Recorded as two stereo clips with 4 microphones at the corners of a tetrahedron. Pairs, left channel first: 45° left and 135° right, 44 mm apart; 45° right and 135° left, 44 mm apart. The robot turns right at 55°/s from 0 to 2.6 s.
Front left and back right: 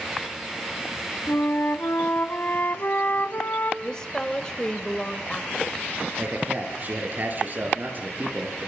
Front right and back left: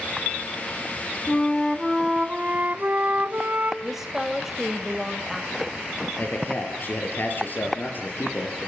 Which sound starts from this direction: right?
A man speaking, at 6.2 s.